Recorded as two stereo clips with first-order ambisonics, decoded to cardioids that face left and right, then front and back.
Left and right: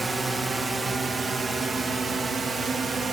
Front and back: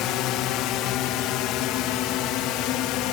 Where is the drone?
15° right; by 3.1 s 20° right.